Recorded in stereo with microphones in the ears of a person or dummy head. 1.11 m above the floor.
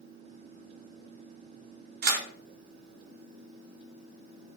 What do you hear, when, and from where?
2.0 s a camera shutter: 45° right (ahead or behind), 0.5 m